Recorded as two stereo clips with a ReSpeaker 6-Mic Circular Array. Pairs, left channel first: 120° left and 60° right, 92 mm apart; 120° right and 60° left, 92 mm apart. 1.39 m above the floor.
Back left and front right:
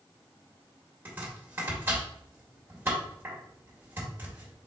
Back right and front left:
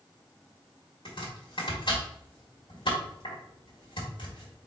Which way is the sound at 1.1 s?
125° right.